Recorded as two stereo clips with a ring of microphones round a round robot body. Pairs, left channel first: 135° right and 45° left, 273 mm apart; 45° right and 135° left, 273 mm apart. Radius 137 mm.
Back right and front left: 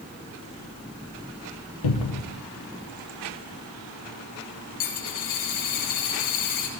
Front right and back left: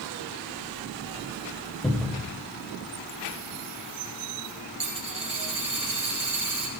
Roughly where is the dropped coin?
Behind right.